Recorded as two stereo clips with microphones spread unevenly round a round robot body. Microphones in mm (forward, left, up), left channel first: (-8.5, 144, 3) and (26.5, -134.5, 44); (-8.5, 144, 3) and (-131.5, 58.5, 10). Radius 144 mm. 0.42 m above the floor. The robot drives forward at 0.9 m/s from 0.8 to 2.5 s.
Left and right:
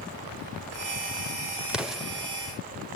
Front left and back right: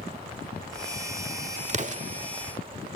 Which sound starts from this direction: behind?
An explosion, at 1.7 s.